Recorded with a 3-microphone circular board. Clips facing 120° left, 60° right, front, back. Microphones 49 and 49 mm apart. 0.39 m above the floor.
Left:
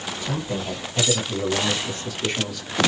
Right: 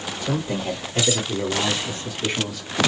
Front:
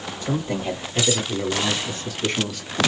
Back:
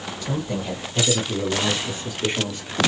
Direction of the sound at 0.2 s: 45° right.